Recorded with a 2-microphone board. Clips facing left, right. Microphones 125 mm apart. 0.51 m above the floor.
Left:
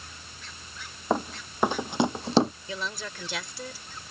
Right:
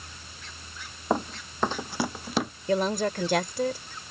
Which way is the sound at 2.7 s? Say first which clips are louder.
Right 11 dB; 55° right (ahead or behind).